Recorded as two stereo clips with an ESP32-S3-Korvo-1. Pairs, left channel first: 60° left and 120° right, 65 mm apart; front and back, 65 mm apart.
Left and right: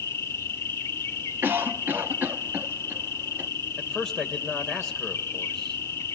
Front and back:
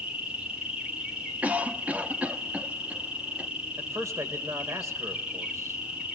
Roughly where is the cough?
Behind right.